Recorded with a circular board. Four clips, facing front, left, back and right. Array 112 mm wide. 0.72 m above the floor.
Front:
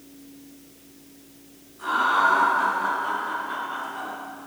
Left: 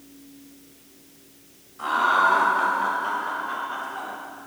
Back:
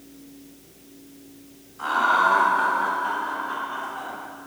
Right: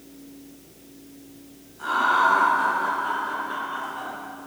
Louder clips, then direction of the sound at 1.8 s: Even, back 1 dB; 120° left.